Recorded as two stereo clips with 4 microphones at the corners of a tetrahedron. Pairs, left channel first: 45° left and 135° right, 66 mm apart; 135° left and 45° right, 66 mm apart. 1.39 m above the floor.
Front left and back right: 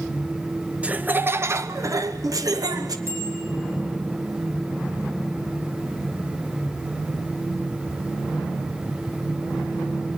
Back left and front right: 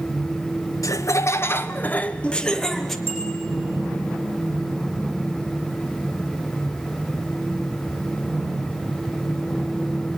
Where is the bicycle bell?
90° right, 7.5 m.